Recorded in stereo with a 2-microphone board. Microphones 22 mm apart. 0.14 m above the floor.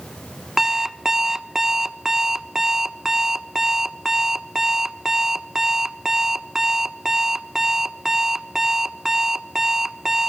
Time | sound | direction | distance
0.6 | an alarm clock | 25° right (ahead or behind) | 0.9 m